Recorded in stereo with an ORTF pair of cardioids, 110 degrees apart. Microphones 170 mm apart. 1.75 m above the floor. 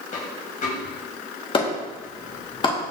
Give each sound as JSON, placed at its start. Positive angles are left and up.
{"t": 0.1, "sound": "a dropped coin", "azimuth_deg": 55, "distance_m": 4.0}
{"t": 1.5, "sound": "a clap", "azimuth_deg": 30, "distance_m": 3.0}